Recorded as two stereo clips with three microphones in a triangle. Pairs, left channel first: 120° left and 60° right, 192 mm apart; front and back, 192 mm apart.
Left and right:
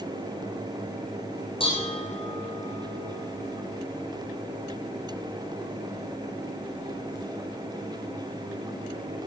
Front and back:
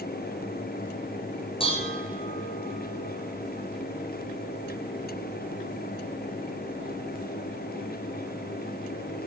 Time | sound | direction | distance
1.6 | dishes clattering | 60° left | 4.5 m